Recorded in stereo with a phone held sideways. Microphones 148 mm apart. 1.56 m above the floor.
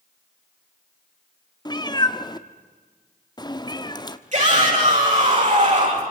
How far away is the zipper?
I don't hear a zipper.